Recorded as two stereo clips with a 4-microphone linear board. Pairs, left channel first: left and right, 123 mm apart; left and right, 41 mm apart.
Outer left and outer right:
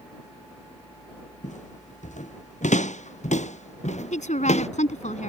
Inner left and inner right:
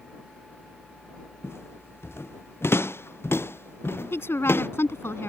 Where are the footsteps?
80° left; by 4.7 s 65° left (ahead or behind).